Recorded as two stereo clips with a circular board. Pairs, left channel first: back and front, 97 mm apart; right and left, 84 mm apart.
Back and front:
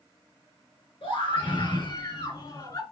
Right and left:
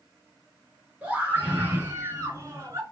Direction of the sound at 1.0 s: 165° left.